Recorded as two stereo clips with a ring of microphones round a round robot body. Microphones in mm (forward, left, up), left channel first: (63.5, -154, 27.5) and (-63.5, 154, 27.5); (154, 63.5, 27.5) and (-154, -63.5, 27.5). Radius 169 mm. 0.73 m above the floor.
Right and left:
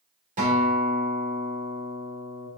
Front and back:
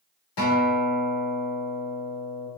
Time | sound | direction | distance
0.4 | a guitar | 45° left | 1.9 m